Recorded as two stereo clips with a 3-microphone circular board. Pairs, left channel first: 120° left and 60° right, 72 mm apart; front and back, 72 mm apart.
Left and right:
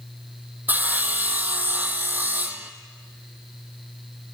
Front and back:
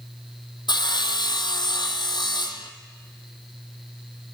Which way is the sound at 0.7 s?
5° left.